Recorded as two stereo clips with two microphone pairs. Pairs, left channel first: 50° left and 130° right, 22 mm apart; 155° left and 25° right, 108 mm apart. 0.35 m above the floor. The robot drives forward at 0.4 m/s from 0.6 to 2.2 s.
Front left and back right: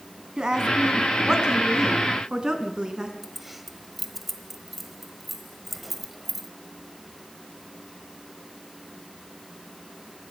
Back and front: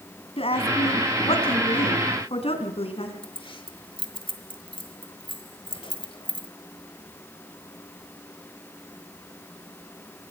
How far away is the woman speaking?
About 3 m.